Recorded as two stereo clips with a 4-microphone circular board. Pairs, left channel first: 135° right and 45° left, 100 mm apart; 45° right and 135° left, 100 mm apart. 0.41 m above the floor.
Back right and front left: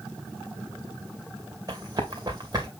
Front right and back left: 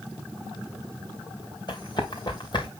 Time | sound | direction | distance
1.7 | running footsteps | 5° right | 2.5 m